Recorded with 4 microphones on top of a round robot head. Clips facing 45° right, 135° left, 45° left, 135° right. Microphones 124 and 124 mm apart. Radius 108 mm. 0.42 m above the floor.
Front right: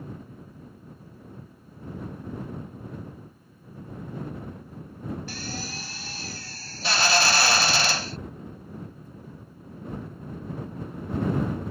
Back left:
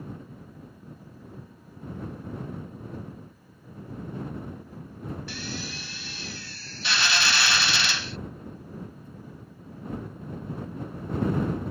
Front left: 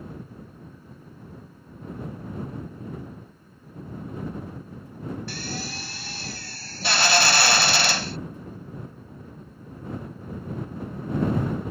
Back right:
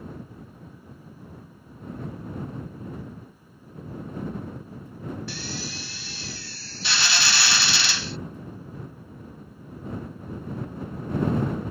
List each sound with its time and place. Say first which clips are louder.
5.3 s a drill: even, front left 1 dB; 5° left